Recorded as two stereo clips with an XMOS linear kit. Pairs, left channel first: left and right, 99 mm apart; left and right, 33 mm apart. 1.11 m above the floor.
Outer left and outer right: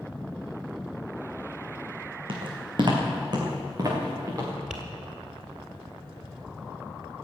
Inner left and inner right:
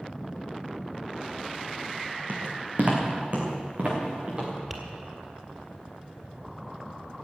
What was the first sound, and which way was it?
Footsteps, 60° right (ahead or behind).